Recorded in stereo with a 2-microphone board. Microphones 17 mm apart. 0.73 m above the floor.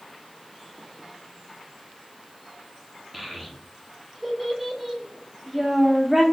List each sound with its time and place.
3.1 s a child speaking: 10° right (ahead or behind), 0.6 m